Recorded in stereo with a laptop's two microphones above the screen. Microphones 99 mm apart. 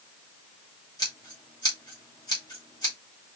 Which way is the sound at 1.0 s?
40° left (ahead or behind).